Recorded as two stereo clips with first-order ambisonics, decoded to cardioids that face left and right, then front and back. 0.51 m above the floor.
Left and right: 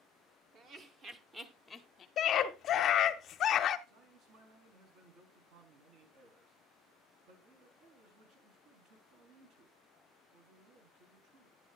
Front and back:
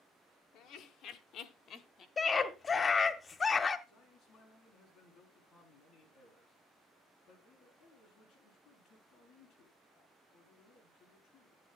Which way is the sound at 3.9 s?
65° right.